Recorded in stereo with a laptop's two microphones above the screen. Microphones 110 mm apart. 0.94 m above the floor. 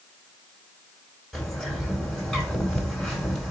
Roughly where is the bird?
Centre.